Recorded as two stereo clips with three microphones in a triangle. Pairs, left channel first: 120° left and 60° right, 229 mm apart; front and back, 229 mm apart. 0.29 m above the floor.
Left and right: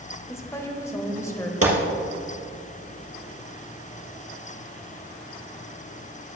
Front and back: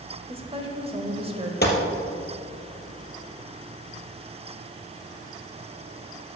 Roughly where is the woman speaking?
Behind.